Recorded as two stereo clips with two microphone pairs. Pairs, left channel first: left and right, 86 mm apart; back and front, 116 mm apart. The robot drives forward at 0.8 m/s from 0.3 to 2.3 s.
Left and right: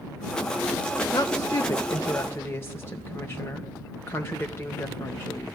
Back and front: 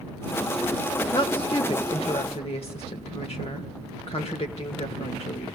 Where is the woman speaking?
135° left, 1.3 m; by 5.6 s 155° left, 2 m.